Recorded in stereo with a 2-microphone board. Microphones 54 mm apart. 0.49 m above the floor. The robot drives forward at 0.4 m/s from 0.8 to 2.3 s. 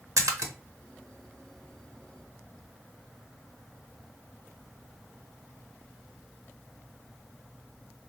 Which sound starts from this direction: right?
A splash, at 0.2 s.